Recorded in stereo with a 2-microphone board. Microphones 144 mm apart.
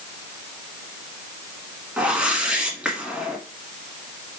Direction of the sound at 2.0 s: 10° right (ahead or behind).